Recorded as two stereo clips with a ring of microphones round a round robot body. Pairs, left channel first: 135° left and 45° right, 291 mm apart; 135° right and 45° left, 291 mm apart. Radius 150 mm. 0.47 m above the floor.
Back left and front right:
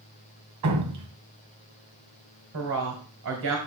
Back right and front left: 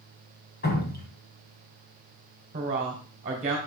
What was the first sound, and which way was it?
Dripping, 75° right.